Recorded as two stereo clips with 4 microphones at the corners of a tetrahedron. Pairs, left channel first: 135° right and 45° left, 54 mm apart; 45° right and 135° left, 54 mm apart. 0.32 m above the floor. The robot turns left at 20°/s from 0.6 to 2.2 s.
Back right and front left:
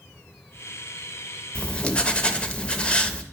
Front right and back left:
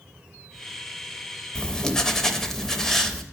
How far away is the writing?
About 0.5 m.